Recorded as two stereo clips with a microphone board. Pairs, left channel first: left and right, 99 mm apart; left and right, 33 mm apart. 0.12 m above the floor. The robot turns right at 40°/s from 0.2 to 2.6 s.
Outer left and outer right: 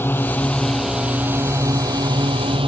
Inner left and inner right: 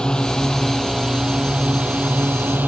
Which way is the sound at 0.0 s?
155° left.